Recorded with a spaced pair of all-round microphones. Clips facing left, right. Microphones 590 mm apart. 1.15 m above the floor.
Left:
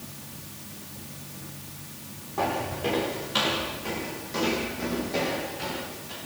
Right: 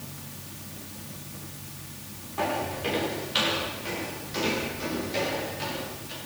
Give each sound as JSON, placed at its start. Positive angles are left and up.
{"t": 2.4, "sound": "footsteps", "side_deg": 65, "distance_m": 7.0}